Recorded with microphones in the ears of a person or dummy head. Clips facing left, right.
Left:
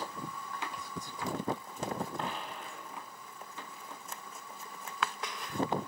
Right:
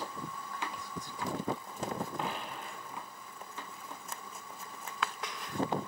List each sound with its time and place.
2.2 s a dropped coin: centre (ahead or behind), 1.0 m